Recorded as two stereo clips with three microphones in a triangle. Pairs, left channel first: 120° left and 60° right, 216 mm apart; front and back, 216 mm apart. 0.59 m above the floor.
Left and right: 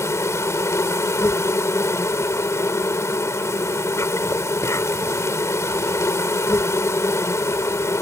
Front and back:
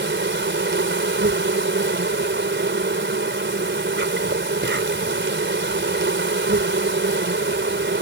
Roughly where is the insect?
Behind.